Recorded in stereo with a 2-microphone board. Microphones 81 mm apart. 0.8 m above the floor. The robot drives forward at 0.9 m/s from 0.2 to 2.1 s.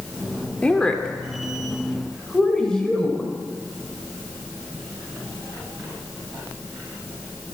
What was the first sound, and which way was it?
A woman speaking, 15° left (ahead or behind).